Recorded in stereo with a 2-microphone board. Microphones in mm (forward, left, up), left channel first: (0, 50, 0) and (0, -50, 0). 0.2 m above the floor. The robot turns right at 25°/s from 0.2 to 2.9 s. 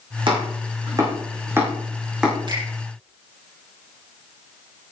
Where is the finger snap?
45° right (ahead or behind), 7.5 m; by 2.6 s 40° right (ahead or behind), 7.5 m.